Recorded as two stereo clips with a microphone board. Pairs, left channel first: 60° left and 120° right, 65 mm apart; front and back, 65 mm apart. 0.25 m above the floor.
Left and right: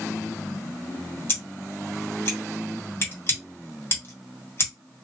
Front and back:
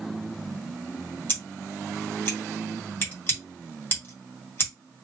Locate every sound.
1.3 s scissors: 35° left, 1.7 m